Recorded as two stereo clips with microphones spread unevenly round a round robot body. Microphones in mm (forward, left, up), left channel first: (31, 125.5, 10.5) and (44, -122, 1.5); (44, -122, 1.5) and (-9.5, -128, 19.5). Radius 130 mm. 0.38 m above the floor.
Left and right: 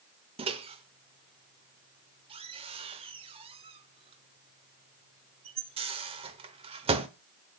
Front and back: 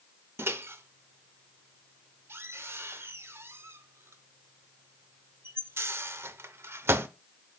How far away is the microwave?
About 0.8 m.